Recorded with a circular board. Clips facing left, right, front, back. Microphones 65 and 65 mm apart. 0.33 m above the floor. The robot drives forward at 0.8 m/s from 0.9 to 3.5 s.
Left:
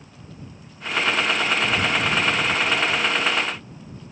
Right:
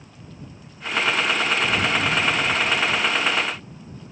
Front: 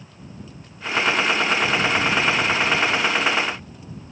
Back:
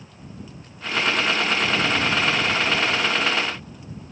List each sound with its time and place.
Only background noise.